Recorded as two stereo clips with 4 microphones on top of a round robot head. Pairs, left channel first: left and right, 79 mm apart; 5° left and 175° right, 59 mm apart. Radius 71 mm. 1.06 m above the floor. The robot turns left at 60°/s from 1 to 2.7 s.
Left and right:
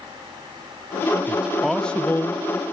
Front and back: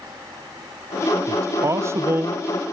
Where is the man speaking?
160° right, 0.6 m; by 2.4 s 135° left, 0.6 m.